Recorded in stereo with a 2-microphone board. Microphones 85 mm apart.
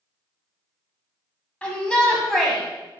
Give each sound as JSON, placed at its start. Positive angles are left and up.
{"t": 1.6, "sound": "a shout", "side_deg": 15, "distance_m": 1.6}